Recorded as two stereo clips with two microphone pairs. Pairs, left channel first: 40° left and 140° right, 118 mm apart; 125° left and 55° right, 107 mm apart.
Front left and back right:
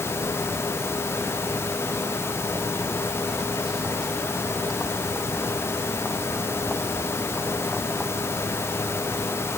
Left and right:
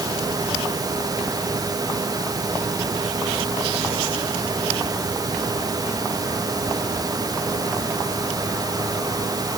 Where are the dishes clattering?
I don't hear dishes clattering.